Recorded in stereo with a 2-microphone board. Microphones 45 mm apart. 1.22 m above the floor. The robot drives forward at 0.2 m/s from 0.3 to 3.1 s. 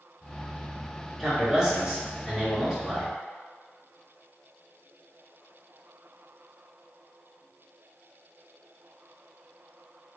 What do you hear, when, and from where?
1.2 s a man speaking: 10° right (ahead or behind), 1.7 m; by 3.1 s 5° right (ahead or behind), 2 m